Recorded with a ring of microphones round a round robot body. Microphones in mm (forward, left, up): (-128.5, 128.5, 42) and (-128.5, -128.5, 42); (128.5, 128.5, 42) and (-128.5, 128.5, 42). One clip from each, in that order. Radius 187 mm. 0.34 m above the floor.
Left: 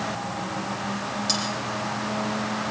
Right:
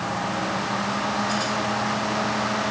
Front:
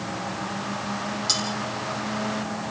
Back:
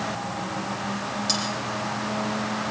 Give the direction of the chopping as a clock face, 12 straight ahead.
No chopping in this recording.